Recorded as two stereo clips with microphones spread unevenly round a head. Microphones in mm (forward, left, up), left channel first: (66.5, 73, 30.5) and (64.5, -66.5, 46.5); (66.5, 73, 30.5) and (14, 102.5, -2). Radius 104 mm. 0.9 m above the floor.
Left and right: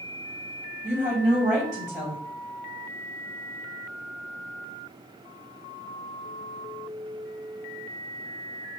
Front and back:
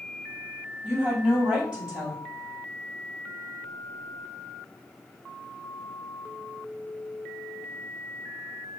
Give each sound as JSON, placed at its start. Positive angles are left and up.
{"t": 0.8, "sound": "a woman speaking", "azimuth_deg": -140, "distance_m": 4.5}